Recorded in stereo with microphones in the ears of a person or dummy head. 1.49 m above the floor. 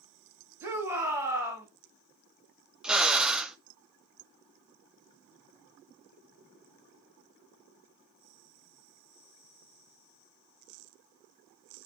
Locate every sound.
0.6 s a shout: 15° right (ahead or behind), 3.5 m
2.8 s a drill: 5° right (ahead or behind), 0.6 m